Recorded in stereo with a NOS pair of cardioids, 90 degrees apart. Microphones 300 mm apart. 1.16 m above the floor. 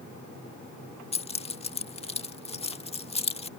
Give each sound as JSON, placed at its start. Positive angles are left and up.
{"t": 1.1, "sound": "keys jangling", "azimuth_deg": 20}